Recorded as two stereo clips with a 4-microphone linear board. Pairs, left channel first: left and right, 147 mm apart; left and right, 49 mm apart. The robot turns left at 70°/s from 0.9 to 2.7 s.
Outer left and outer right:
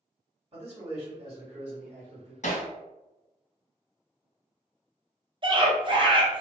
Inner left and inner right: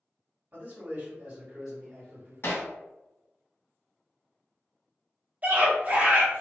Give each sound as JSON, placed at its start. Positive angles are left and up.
{"t": 0.5, "sound": "a man speaking", "azimuth_deg": -120, "distance_m": 1.7}
{"t": 2.4, "sound": "hammering", "side_deg": 55, "distance_m": 0.7}
{"t": 5.4, "sound": "a scream", "side_deg": -35, "distance_m": 0.8}